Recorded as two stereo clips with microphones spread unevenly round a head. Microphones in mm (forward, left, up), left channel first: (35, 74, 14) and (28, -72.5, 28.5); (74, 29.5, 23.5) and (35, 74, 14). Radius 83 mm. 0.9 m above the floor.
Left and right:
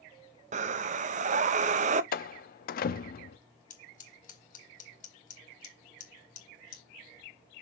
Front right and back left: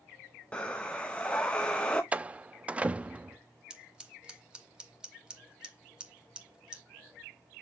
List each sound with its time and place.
0.5 s breathing: 130° right, 0.6 m
2.1 s a door slam: 60° left, 0.6 m
3.7 s scissors: 55° left, 1.9 m